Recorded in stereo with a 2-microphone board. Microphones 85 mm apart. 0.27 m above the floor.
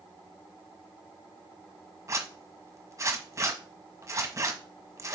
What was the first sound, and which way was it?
A zipper, 35° right (ahead or behind).